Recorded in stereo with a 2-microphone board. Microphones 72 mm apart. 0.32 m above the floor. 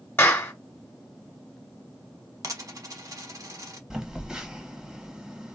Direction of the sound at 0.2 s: 30° left (ahead or behind).